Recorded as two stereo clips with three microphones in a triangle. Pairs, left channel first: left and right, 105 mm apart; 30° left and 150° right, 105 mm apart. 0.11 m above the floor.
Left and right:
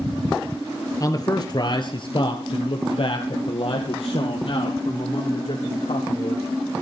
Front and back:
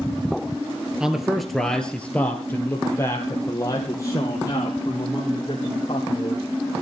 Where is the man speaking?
130° left, 1.5 m; by 6.5 s 75° left, 4.5 m.